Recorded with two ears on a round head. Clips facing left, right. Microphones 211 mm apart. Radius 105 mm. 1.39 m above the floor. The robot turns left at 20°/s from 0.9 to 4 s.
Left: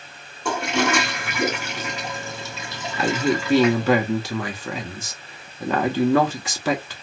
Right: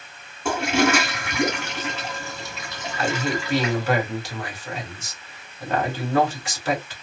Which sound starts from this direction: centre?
A toilet flushing, at 0.5 s.